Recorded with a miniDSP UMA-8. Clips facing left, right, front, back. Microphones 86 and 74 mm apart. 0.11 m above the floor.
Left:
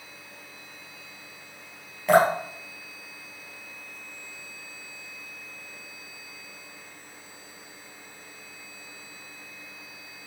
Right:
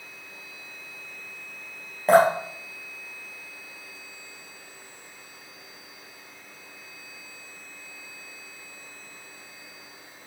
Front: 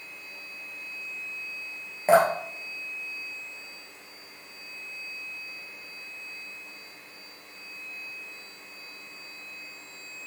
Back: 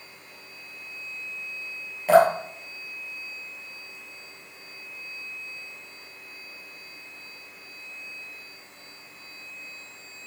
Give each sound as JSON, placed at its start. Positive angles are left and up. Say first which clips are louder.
{"t": 2.1, "sound": "dripping", "louder": "right 2 dB, back 3 dB", "azimuth_deg": -50, "distance_m": 3.0}